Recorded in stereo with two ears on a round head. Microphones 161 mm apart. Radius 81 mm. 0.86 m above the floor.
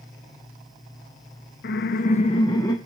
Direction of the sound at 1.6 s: 50° left (ahead or behind).